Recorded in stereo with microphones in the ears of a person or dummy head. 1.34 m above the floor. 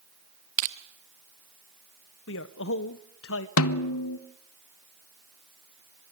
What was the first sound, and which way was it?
Crushing, 45° right (ahead or behind).